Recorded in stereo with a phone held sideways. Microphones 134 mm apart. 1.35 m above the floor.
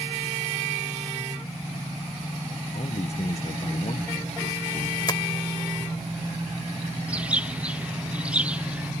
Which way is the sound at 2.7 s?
55° left (ahead or behind).